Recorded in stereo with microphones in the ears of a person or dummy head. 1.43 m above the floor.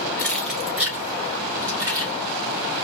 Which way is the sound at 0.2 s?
15° left (ahead or behind).